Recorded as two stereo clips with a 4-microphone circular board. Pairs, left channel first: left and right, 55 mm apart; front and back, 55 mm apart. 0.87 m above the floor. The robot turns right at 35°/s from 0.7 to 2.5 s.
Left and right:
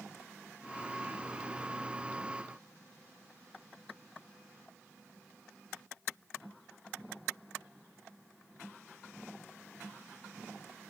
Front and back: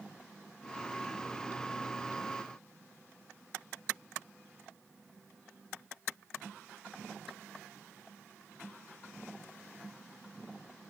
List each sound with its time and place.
Only background noise.